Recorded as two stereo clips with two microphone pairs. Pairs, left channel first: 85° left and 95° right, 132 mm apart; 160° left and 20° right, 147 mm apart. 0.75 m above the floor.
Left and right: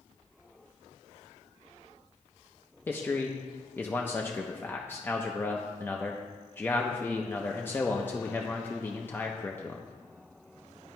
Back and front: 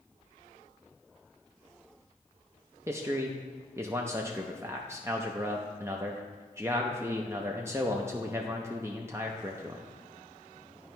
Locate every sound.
2.9 s a man speaking: 30° left, 0.5 m